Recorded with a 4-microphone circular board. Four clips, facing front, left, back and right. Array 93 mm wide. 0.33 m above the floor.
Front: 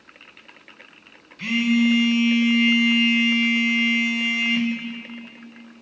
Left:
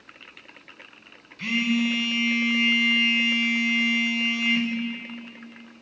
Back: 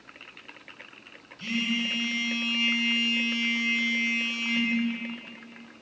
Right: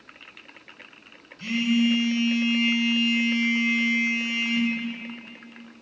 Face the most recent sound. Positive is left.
turn(degrees=35)